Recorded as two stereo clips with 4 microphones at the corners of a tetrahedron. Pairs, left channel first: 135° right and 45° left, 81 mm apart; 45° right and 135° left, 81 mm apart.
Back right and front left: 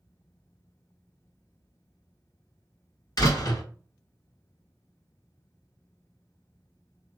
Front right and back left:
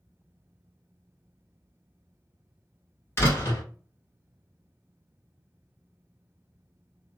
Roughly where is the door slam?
Right.